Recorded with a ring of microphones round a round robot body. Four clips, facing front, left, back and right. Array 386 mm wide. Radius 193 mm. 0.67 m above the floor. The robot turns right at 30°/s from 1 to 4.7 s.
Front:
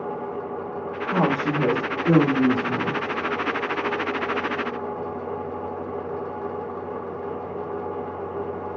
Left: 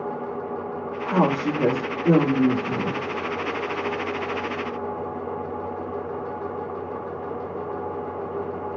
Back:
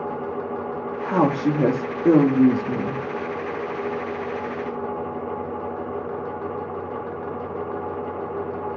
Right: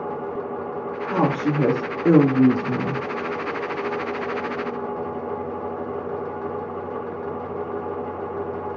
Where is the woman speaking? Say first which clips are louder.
Even, back 3 dB; 165° right, 0.8 m; by 3.0 s 105° right, 0.8 m.